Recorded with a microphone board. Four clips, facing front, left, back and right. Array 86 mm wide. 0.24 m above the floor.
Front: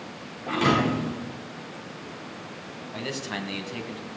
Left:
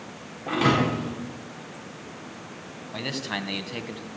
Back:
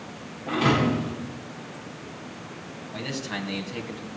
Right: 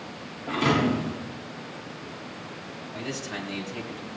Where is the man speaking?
80° left, 1.7 m.